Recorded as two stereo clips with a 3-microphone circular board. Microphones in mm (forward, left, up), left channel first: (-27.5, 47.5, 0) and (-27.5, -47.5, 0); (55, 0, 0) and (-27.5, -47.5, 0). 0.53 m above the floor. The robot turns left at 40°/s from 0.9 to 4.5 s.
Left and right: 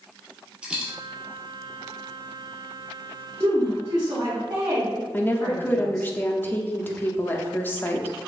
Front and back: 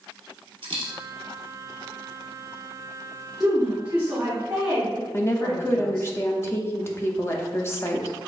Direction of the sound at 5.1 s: 45° left.